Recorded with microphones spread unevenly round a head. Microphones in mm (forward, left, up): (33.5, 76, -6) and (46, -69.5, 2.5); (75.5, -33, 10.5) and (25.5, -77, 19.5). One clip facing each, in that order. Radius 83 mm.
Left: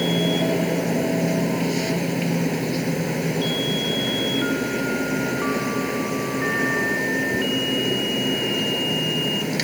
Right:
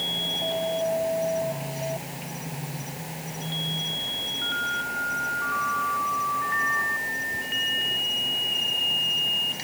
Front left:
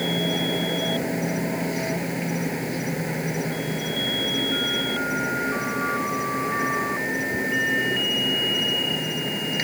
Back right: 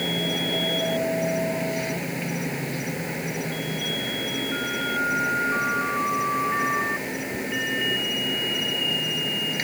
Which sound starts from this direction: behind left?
An insect, at 0.0 s.